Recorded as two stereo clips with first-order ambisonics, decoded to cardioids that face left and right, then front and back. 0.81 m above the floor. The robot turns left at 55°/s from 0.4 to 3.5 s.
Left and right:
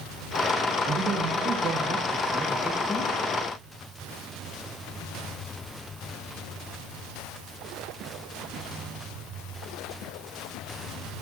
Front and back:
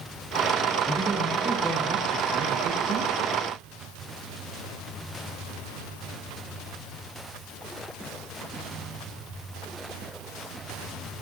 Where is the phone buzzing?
I don't hear a phone buzzing.